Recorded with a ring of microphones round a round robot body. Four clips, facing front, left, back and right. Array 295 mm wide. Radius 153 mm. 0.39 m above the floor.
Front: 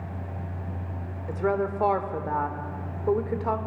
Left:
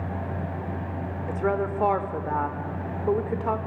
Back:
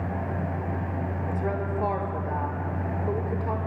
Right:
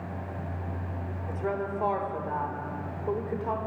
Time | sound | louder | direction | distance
1.3 | a woman speaking | left 5 dB, front 6 dB | 50° left | 1.2 m